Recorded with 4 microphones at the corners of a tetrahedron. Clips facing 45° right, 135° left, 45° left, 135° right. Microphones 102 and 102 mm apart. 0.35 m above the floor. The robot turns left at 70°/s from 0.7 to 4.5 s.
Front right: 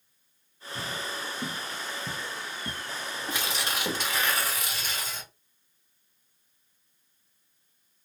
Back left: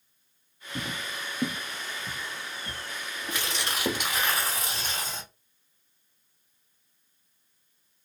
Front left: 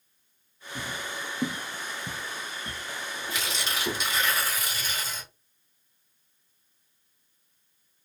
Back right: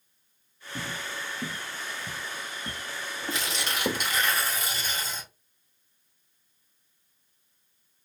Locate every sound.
0.8 s footsteps: 160° left, 0.7 m; by 4.1 s straight behind, 1.4 m
3.3 s tearing paper: 100° right, 2 m; by 5.3 s 175° left, 2 m